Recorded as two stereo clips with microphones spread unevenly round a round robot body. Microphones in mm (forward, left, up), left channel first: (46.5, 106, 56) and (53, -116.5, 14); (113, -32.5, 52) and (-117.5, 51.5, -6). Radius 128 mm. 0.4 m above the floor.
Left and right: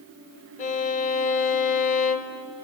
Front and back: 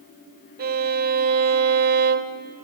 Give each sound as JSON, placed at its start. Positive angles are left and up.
{"t": 0.6, "sound": "a violin", "azimuth_deg": 150, "distance_m": 0.6}